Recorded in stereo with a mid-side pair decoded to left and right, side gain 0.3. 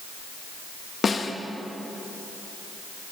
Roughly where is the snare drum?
Ahead left.